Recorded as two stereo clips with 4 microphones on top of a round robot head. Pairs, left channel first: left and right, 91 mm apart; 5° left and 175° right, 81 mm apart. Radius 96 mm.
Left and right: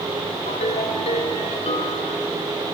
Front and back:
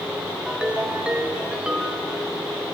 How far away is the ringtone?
About 1.3 m.